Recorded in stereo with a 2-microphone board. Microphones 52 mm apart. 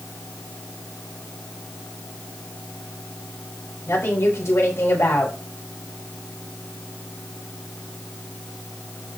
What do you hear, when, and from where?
3.9 s a woman speaking: 75° left (ahead or behind), 4.5 m